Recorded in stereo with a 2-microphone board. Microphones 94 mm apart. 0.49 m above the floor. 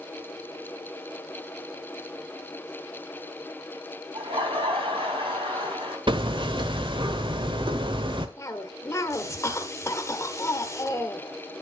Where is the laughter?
70° right (ahead or behind), 4 m.